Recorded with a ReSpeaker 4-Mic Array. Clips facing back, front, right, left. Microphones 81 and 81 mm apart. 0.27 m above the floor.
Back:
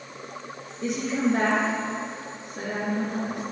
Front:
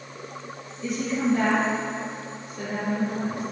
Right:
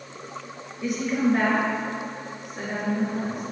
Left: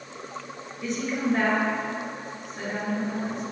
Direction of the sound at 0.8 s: 170° right.